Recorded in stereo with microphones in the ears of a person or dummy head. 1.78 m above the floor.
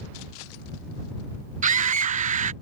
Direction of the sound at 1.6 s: 45° right (ahead or behind).